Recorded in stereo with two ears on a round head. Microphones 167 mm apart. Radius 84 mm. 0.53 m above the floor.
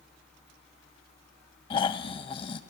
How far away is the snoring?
About 0.5 m.